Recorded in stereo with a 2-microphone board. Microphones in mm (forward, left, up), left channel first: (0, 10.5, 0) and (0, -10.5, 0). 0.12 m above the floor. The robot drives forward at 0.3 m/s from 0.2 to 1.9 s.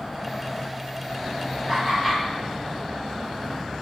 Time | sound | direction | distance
1.7 | laughter | 15° left (ahead or behind) | 1.8 m